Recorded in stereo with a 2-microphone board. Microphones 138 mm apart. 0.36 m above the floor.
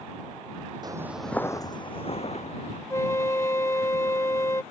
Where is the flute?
20° left (ahead or behind).